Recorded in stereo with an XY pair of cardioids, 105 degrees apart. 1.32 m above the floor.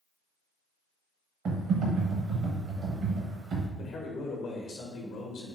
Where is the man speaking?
70° left, 1.0 m.